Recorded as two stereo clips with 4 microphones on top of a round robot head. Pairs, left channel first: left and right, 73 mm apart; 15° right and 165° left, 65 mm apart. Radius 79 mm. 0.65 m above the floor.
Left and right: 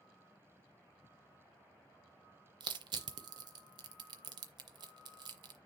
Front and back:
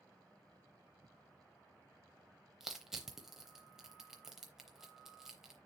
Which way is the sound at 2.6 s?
105° right.